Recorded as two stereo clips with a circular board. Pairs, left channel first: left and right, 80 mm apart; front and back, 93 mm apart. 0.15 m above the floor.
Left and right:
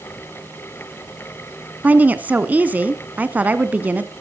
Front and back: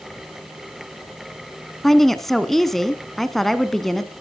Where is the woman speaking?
80° right, 1.1 m.